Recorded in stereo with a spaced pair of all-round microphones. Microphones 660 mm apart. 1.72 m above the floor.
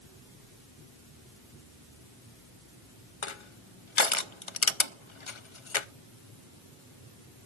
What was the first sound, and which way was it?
Crushing, 50° left (ahead or behind).